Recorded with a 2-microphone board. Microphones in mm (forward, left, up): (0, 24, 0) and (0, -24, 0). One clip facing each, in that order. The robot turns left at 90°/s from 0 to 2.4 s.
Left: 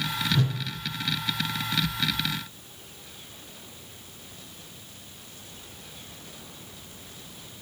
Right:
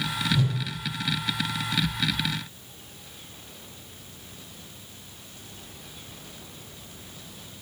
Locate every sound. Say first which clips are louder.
0.3 s a whoosh: even; 50° left (ahead or behind), 2 m; by 0.6 s 35° left (ahead or behind), 2 m